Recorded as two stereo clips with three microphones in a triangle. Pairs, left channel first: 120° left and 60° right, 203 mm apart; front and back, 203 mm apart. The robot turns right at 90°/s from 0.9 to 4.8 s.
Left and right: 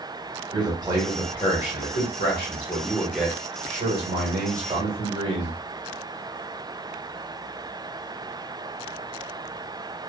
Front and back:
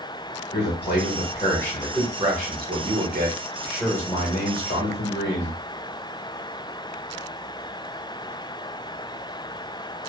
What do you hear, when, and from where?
0.5 s a man speaking: 5° left, 1.2 m; by 5.5 s 5° right, 1.2 m